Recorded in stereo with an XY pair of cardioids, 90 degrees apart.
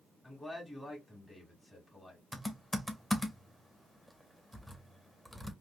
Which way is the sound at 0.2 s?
20° left.